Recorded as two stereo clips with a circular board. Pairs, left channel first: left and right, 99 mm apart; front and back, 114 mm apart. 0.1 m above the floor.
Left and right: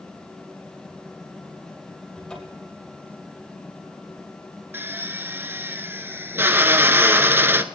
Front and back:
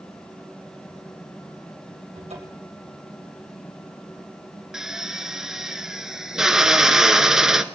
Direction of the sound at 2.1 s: 175° left.